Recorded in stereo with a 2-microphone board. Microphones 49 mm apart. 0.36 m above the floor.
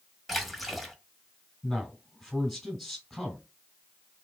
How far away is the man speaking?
About 2 m.